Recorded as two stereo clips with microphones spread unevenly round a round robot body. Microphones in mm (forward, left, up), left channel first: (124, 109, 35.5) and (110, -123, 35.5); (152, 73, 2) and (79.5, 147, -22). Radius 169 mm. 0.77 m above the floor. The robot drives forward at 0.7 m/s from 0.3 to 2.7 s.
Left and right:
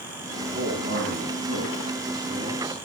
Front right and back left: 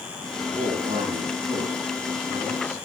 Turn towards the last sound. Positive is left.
turn(degrees=-150)